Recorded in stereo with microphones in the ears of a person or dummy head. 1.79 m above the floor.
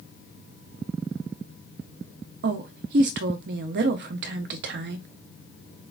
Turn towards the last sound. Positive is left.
turn(degrees=-60)  # may be behind; listen again after turning